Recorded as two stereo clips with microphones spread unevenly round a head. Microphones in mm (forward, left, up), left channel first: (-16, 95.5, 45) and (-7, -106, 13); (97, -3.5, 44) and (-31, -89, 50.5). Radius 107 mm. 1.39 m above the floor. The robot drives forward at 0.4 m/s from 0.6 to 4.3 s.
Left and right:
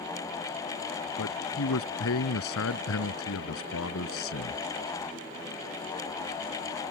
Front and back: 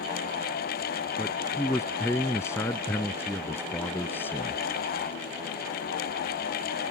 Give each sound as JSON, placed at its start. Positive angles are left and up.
{"t": 1.2, "sound": "a man speaking", "azimuth_deg": 110}